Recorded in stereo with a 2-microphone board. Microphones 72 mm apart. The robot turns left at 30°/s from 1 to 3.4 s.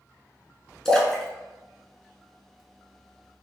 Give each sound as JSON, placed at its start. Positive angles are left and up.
{"t": 0.8, "sound": "a splash", "side_deg": 10, "distance_m": 0.9}